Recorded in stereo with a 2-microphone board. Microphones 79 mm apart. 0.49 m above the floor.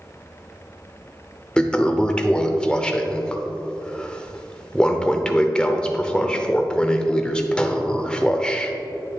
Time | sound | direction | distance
1.6 | a toilet flushing | 10° left (ahead or behind) | 0.8 m